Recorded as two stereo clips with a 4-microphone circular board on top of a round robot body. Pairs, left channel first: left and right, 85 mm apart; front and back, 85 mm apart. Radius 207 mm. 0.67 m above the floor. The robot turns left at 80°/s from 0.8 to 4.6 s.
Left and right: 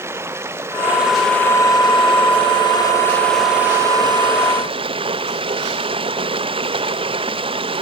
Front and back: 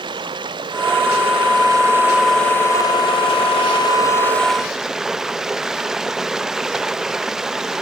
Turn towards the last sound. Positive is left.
turn(degrees=-95)